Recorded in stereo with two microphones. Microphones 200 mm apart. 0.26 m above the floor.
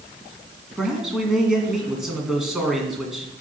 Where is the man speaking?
5° right (ahead or behind), 2.5 m.